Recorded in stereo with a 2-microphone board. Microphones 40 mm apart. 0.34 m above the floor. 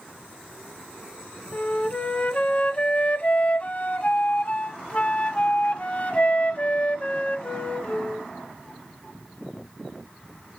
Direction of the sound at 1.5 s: 35° left (ahead or behind).